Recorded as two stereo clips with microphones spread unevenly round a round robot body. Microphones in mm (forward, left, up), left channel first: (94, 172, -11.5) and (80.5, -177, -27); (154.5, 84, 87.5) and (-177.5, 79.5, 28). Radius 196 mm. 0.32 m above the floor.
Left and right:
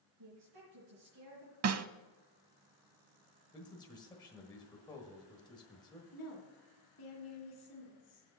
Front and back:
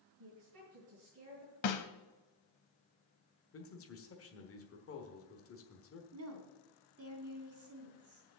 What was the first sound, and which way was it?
A woman speaking, 130° right.